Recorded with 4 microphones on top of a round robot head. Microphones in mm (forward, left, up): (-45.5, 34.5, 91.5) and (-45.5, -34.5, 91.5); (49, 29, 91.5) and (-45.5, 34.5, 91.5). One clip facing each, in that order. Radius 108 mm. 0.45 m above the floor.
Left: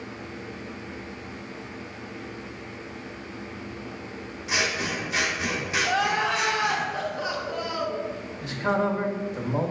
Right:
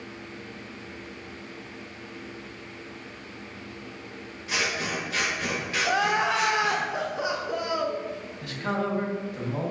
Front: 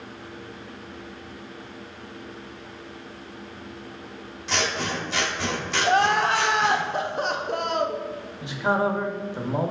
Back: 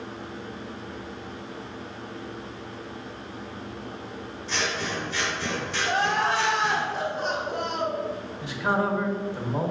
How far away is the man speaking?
About 0.9 m.